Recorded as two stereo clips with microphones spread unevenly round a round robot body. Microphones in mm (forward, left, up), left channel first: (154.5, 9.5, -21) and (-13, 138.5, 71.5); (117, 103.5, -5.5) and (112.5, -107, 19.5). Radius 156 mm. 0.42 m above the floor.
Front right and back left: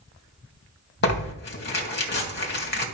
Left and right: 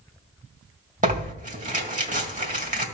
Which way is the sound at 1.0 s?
35° right.